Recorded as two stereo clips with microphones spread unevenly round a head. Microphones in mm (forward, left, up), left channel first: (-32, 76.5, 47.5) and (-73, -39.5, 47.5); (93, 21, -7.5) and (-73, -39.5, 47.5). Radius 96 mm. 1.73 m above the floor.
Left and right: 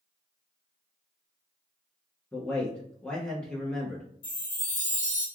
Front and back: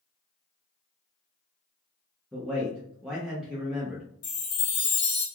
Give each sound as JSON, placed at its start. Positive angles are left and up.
{"t": 2.3, "sound": "a man speaking", "azimuth_deg": 145, "distance_m": 0.5}
{"t": 4.2, "sound": "a chime", "azimuth_deg": 45, "distance_m": 1.4}